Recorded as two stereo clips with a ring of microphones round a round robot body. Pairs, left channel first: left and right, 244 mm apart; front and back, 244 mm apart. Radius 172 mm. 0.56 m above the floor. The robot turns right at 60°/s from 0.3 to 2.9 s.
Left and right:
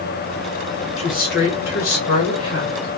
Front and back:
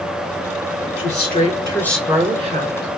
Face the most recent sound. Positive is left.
turn(degrees=145)